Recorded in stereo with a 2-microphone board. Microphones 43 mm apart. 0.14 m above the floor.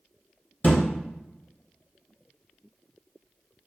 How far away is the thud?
About 1.1 m.